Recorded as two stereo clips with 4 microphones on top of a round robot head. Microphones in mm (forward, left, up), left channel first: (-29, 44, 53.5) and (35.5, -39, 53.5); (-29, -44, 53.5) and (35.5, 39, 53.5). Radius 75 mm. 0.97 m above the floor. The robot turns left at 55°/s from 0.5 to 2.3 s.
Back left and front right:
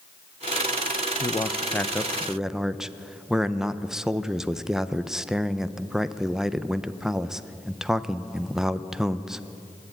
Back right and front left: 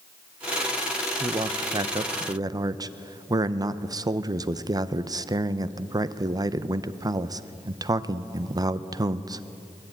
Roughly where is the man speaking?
Left.